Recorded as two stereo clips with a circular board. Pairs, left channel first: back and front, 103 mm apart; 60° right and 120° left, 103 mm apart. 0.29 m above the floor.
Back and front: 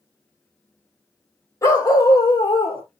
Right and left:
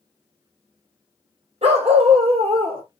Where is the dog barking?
120° left, 3 m; by 2.8 s 150° left, 1.6 m.